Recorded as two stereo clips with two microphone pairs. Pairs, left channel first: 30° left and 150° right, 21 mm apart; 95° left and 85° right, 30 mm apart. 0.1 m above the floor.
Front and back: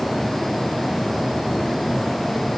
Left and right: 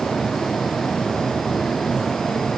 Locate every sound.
Only background noise.